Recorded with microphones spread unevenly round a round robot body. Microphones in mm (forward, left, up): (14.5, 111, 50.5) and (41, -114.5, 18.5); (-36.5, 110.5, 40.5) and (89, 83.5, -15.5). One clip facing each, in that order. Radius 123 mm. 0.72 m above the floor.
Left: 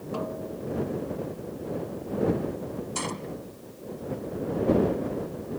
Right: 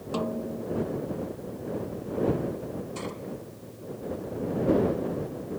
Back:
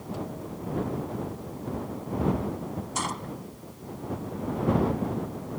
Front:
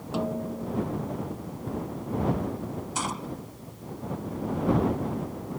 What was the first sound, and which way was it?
A snare drum, 40° right.